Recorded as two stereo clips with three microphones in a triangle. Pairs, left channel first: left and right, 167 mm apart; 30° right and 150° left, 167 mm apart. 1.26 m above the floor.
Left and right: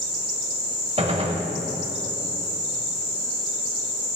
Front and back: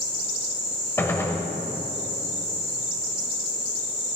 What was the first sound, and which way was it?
A gunshot, 95° right.